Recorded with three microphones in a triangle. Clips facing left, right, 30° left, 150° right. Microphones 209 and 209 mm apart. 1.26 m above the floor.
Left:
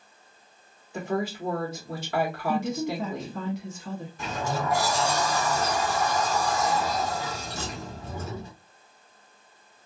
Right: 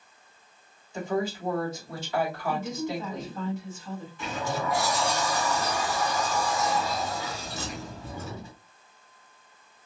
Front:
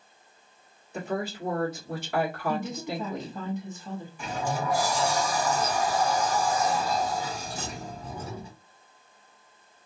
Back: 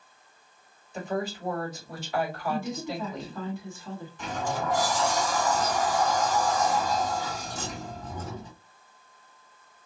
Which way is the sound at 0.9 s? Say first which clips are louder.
Even, even; 60° left.